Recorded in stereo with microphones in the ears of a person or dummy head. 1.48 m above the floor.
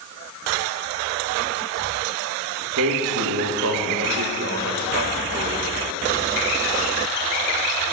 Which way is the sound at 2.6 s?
75° right (ahead or behind).